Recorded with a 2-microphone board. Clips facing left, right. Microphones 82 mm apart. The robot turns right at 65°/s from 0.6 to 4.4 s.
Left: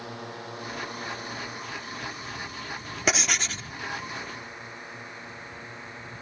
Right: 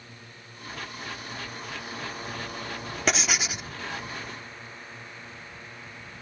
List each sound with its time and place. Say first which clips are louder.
0.0 s a drone: left 11 dB; 80° left; by 6.2 s 20° left (ahead or behind)
3.1 s writing: even; 175° left; by 3.7 s 145° right